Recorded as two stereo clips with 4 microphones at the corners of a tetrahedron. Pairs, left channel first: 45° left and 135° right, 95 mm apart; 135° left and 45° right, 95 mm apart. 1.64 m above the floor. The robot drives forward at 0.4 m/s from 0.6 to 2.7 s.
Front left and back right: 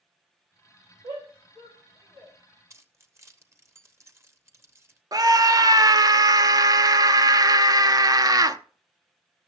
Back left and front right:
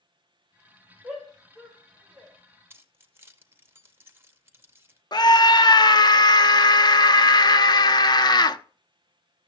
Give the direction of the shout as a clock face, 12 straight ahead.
4 o'clock.